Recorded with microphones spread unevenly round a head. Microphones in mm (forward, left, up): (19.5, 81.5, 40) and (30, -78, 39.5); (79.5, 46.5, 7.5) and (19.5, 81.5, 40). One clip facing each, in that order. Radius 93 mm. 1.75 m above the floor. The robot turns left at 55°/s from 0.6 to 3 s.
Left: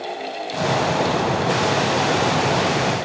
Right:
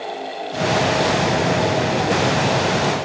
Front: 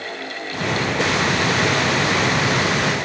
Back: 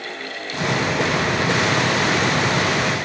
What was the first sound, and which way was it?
Only background noise.